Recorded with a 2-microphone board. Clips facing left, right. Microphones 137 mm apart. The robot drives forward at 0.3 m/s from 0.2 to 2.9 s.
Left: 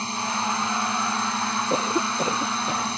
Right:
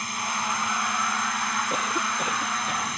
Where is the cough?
30° left (ahead or behind); by 2.9 s 25° left (ahead or behind).